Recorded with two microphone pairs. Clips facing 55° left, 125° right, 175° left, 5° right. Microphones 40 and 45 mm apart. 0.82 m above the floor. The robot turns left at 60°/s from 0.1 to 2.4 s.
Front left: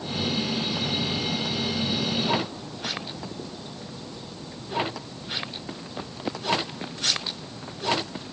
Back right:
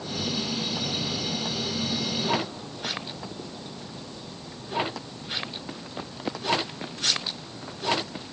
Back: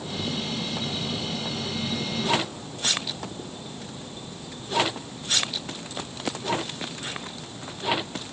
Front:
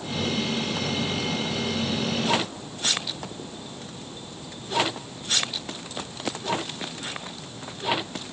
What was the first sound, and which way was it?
Only background noise.